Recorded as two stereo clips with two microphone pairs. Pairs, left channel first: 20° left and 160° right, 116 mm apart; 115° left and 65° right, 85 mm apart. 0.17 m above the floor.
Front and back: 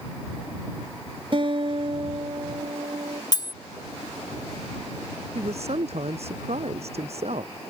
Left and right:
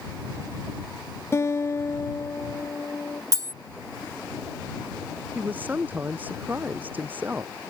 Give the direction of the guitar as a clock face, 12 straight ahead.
6 o'clock.